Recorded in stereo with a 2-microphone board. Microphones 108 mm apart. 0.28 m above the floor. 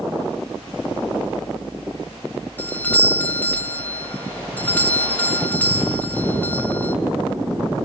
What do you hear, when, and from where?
2.6 s a doorbell: 15° left (ahead or behind), 1.7 m